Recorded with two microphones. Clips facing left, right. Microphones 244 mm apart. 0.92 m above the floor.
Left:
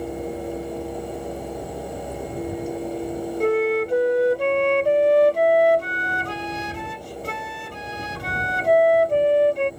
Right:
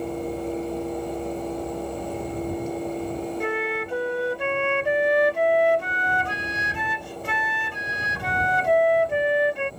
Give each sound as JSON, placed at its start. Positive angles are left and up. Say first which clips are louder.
{"t": 3.4, "sound": "a flute", "louder": "left 8 dB", "side_deg": 40}